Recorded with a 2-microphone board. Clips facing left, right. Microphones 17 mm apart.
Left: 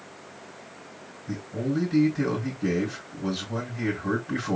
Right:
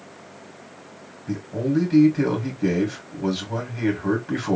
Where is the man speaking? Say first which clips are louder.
Right 5 dB; 65° right (ahead or behind), 2.5 m.